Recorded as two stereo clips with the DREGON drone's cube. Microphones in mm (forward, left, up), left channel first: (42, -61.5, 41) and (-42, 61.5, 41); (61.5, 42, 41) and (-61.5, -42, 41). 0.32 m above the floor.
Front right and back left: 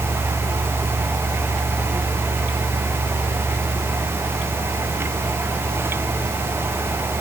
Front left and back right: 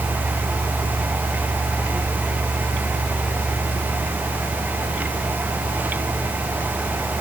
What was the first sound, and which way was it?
Only background noise.